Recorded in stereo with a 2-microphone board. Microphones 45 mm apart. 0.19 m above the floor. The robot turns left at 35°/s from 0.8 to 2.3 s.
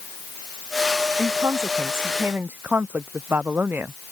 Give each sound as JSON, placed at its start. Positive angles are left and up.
{"t": 1.2, "sound": "a woman speaking", "azimuth_deg": -90}